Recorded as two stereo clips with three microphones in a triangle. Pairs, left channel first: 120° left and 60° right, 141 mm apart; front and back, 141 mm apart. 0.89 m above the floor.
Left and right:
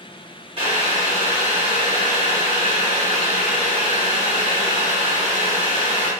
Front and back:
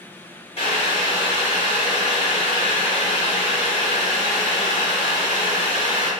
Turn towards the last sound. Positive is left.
turn(degrees=-30)